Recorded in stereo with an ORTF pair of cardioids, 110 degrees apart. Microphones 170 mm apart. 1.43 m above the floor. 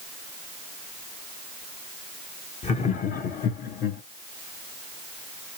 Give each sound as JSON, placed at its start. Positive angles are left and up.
{"t": 2.6, "sound": "laughter", "azimuth_deg": 40, "distance_m": 1.0}